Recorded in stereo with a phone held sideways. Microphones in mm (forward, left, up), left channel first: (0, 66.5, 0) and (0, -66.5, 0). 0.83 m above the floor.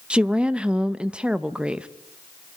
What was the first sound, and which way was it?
A woman speaking, 10° right (ahead or behind).